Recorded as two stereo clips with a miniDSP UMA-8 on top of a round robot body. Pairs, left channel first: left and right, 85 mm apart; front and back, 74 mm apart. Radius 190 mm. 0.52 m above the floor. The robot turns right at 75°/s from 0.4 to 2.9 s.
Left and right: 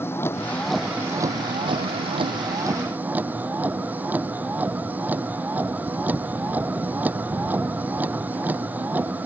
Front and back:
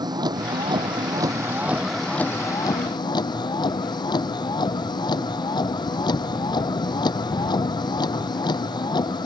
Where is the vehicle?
155° left; by 9.3 s 20° right.